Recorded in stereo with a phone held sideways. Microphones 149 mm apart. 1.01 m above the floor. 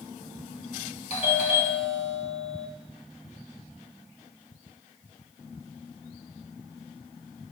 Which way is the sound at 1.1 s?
45° left (ahead or behind).